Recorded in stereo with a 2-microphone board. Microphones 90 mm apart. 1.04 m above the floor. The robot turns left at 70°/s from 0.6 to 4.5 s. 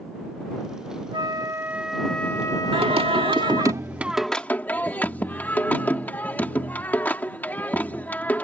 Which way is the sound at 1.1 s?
120° right.